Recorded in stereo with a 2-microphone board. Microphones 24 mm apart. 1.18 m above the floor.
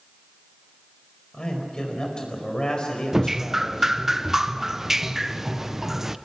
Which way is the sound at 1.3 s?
40° left (ahead or behind).